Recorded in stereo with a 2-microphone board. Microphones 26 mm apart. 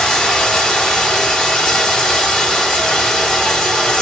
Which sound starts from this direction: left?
Running water, at 0.0 s.